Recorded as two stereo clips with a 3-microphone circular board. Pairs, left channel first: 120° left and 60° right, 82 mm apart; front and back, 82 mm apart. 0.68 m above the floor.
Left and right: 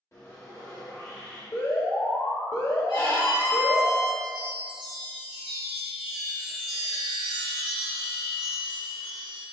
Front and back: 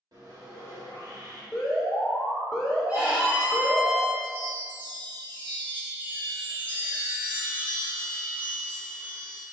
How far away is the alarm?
About 0.9 m.